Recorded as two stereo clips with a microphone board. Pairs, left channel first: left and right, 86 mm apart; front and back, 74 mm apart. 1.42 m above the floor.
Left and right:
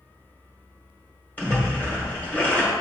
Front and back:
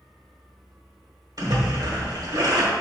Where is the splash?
155° left, 2.0 m.